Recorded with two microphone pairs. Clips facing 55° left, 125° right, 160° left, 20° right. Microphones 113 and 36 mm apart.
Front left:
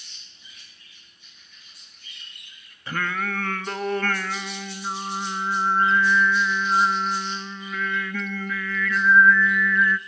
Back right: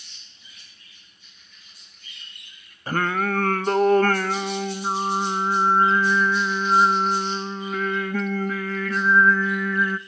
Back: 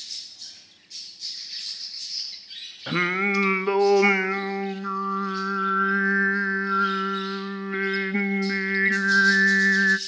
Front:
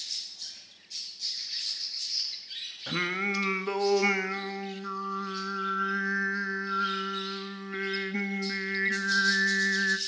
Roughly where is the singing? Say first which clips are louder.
Back right 5 dB, back 7 dB; behind right.